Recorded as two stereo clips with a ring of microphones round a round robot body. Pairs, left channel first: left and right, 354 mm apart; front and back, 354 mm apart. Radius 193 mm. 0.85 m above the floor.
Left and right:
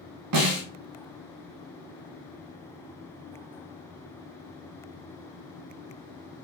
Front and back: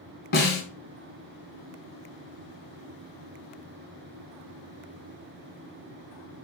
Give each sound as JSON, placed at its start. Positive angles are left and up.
{"t": 0.3, "sound": "a snare drum", "azimuth_deg": -60, "distance_m": 1.2}